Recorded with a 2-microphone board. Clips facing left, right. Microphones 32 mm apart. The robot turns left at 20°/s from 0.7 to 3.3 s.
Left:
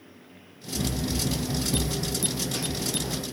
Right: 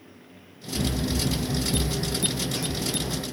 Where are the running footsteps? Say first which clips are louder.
Right 2 dB; 45° right (ahead or behind), 0.8 m; by 3.2 s 65° left (ahead or behind), 1.4 m.